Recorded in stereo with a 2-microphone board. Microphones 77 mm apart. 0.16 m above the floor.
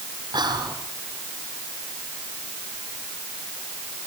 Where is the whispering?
65° right (ahead or behind), 5 m.